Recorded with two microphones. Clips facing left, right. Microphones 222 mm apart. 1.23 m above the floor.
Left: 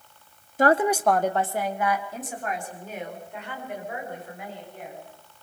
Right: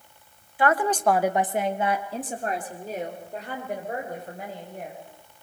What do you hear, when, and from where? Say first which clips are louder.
0.6 s a woman speaking: left 2 dB; 45° left (ahead or behind), 0.8 m; by 5.0 s 40° right (ahead or behind), 7 m